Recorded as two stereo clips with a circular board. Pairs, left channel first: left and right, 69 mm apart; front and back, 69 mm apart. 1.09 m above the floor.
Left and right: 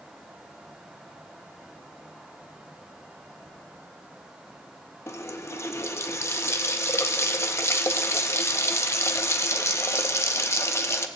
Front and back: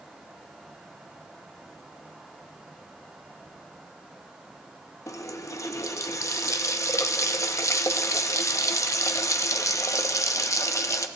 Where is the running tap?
40° left, 0.7 m.